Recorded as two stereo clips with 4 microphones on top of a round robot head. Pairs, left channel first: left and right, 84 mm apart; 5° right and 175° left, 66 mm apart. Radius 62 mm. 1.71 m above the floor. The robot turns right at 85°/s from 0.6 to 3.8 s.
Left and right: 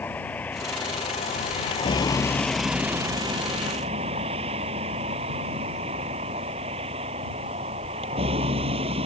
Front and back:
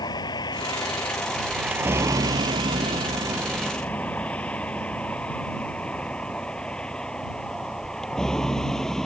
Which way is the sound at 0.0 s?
15° left.